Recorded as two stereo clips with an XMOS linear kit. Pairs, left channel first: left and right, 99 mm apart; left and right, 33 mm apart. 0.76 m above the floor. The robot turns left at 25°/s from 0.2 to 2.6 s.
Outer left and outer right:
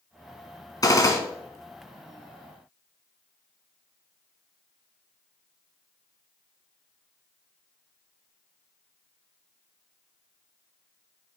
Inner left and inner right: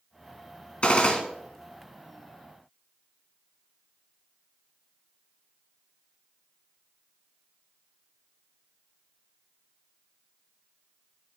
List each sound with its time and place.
0.8 s a gunshot: 40° left (ahead or behind), 1.9 m; by 1.2 s 30° left (ahead or behind), 1.9 m